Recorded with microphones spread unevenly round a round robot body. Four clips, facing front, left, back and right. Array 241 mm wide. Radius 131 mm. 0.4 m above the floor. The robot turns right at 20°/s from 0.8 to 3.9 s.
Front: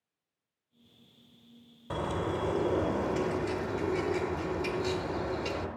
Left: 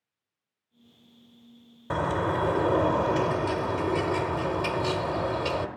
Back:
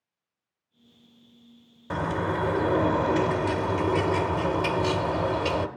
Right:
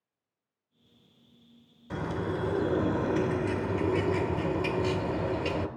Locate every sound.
1.9 s a bird: 105° left, 1.3 m; by 5.7 s 145° left, 1.3 m